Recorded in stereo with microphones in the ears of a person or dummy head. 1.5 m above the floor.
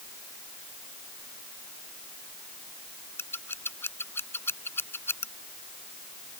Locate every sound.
3.2 s scissors: 20° left (ahead or behind)